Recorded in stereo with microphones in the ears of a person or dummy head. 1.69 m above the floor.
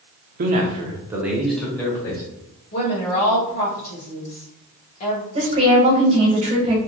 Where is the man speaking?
50° right (ahead or behind), 0.7 m; by 2.2 s 15° left (ahead or behind), 1.2 m.